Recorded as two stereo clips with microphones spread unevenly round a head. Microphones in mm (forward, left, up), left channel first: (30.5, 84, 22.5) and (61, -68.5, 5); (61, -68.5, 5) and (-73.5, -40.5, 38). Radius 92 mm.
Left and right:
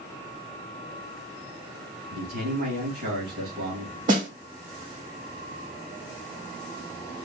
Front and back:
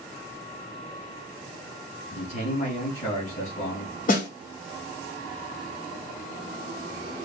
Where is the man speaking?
45° right, 3 m.